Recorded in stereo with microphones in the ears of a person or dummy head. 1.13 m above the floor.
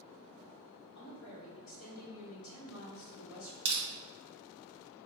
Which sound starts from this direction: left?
A woman speaking, at 0.9 s.